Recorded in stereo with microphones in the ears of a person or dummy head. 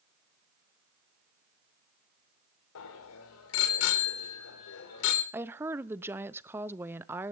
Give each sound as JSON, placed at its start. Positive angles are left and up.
{"t": 2.8, "sound": "a bicycle bell", "side_deg": 75, "distance_m": 4.0}
{"t": 5.3, "sound": "a woman speaking", "side_deg": -5, "distance_m": 0.8}